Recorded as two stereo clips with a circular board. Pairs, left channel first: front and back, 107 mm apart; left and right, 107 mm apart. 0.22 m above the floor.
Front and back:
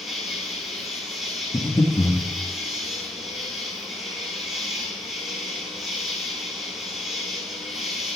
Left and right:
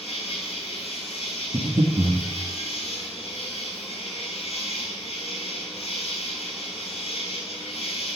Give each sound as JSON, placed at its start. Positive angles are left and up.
{"t": 0.0, "sound": "an insect", "azimuth_deg": 95, "distance_m": 8.5}
{"t": 1.5, "sound": "breathing", "azimuth_deg": -60, "distance_m": 4.0}